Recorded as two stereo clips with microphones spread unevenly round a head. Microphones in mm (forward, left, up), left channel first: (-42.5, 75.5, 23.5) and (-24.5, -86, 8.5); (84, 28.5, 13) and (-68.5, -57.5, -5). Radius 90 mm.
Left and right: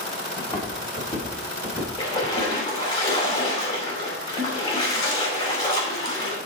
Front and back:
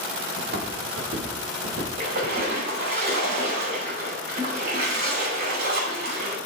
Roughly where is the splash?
Behind.